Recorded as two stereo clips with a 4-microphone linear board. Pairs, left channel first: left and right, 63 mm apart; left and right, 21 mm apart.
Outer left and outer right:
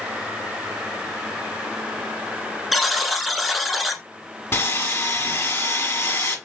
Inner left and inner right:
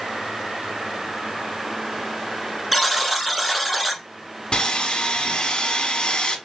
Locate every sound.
2.7 s a buzzer: centre (ahead or behind), 1.0 m
4.5 s sawing: 45° left (ahead or behind), 1.2 m